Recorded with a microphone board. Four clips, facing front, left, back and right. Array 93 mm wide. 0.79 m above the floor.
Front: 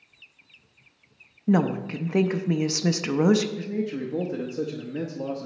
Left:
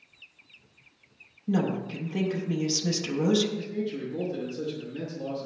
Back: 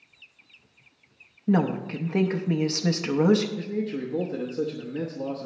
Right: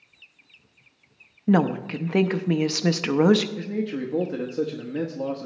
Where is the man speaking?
75° right, 0.9 m.